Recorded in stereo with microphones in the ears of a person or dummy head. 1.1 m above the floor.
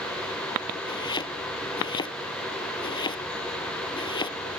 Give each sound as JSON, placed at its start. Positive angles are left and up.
{"t": 0.9, "sound": "chopping", "side_deg": 25}